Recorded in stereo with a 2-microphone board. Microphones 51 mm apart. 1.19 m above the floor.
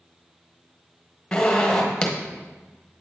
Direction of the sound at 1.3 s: 10° left (ahead or behind).